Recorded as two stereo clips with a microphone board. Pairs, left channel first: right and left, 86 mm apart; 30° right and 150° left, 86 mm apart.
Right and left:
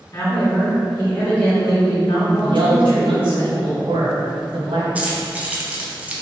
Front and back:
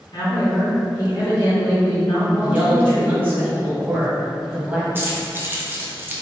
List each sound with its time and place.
0.1 s a woman speaking: 45° right, 1.4 m; by 3.4 s 115° right, 1.8 m
2.4 s a man speaking: 80° left, 1.0 m
5.0 s keys jangling: 140° left, 0.5 m